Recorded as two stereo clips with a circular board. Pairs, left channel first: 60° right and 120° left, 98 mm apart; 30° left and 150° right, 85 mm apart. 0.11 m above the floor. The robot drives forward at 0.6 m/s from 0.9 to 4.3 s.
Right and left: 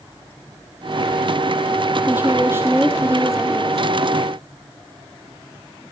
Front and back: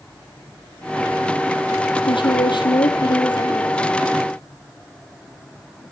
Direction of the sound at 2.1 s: 50° left.